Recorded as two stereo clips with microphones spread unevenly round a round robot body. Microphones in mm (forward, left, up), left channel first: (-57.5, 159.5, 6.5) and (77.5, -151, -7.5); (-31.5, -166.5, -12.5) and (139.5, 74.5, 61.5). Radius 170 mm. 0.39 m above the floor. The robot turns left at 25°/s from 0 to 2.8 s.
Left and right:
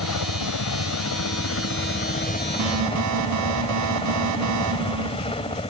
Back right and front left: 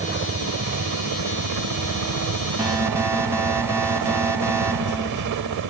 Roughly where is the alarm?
Ahead right.